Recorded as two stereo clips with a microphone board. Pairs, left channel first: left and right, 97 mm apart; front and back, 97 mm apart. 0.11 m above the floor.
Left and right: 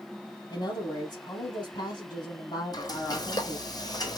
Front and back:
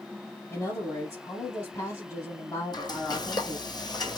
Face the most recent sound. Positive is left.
turn(degrees=45)